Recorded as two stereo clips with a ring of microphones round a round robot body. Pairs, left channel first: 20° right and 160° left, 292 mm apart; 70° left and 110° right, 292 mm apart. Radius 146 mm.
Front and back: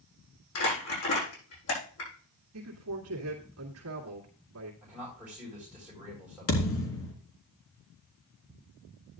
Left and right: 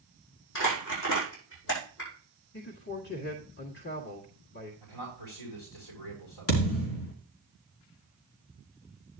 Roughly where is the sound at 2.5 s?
Behind left.